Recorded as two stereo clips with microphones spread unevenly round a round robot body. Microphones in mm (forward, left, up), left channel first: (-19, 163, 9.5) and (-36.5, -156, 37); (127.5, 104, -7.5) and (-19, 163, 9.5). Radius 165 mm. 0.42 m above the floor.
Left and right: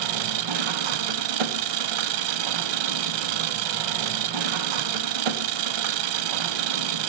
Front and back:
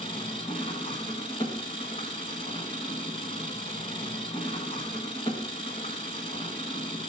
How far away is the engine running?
About 0.9 m.